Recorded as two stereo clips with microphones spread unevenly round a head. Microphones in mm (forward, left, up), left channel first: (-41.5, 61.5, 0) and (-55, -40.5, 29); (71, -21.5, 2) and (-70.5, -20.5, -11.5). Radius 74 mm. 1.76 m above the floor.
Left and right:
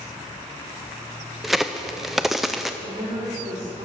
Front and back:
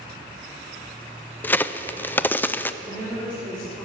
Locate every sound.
1.4 s a crack: 50° right, 0.5 m
2.8 s a woman speaking: 80° right, 4 m